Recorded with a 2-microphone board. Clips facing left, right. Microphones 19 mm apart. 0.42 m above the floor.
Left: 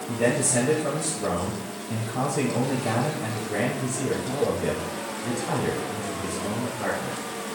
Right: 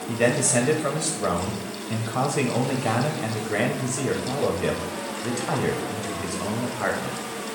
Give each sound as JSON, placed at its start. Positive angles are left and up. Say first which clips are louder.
{"t": 0.1, "sound": "a man speaking", "louder": "right 2 dB", "side_deg": -45, "distance_m": 1.6}